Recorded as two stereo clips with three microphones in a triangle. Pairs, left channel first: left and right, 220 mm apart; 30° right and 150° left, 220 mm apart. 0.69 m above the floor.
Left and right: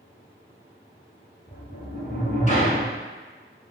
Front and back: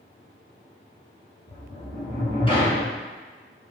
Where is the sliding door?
35° left, 1.6 m.